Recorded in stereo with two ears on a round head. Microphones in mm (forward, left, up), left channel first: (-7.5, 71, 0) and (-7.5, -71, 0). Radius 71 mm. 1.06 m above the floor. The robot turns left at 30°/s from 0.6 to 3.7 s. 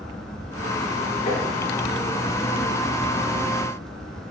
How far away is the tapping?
About 6 m.